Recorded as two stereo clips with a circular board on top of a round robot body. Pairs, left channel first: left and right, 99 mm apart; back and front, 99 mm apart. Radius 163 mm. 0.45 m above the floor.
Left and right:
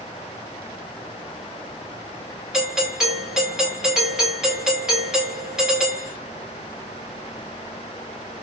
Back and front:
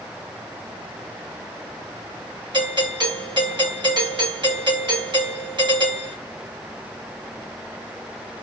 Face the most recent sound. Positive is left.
turn(degrees=-10)